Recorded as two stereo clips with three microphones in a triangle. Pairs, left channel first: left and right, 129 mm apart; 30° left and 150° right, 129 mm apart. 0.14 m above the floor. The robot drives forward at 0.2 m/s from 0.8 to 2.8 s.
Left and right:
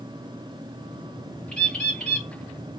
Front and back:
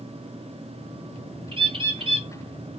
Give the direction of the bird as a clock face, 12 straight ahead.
6 o'clock.